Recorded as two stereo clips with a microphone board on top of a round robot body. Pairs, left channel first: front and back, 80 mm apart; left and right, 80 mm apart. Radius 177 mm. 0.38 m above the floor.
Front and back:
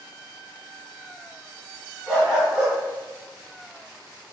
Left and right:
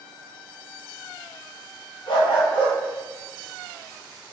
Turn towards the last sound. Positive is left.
turn(degrees=95)